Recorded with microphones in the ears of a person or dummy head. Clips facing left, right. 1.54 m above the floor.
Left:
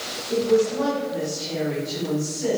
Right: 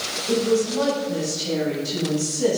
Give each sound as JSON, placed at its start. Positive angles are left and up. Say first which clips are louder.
{"t": 0.3, "sound": "a woman speaking", "louder": "left 1 dB", "side_deg": -85, "distance_m": 9.0}